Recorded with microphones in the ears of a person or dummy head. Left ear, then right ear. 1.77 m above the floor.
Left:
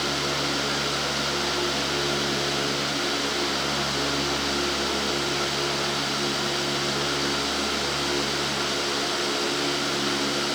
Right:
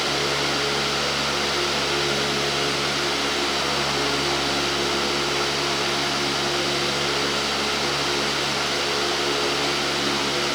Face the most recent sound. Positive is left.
No sound to turn to.